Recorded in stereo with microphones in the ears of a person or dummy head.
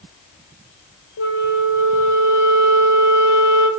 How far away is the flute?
About 2.5 m.